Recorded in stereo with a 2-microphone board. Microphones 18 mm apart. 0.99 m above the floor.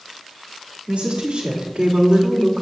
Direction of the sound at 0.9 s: 80° right.